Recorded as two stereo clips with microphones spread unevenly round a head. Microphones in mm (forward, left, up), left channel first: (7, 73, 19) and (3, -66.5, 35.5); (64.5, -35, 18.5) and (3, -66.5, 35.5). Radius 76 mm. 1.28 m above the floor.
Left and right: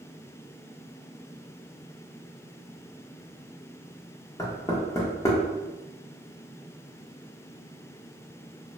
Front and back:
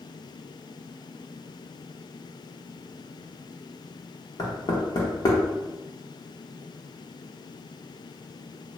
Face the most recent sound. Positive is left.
turn(degrees=25)